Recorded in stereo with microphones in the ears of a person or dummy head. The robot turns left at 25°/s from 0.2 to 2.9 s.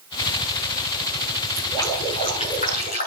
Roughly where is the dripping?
Behind.